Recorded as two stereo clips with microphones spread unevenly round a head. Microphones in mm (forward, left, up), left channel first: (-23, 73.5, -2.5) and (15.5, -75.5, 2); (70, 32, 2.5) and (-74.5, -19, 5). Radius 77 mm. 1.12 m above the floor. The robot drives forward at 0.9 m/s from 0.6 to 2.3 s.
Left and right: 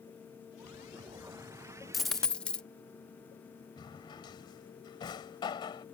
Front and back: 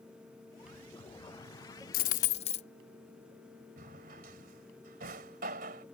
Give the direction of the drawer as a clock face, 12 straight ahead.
6 o'clock.